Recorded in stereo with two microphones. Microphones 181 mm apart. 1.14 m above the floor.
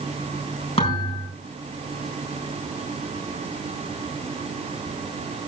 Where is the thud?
35° left (ahead or behind), 6 m.